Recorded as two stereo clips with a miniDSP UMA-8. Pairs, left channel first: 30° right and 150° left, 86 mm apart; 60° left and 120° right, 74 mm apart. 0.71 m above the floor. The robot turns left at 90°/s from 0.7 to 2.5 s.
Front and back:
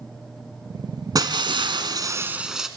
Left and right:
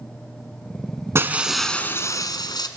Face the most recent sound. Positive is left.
turn(degrees=65)